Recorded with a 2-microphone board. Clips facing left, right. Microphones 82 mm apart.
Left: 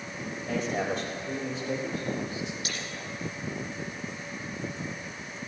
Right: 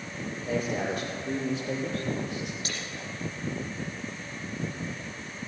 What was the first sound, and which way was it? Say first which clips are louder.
A man speaking: even; 45° right (ahead or behind).